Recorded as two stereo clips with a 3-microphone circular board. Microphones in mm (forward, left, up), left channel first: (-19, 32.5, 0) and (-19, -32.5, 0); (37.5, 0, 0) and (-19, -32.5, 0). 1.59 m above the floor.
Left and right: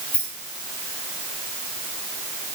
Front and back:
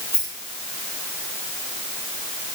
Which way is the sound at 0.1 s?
155° left.